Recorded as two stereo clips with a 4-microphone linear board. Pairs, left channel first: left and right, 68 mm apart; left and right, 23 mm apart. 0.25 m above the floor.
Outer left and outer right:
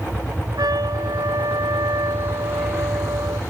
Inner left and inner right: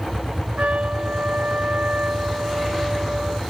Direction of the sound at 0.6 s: 70° right (ahead or behind).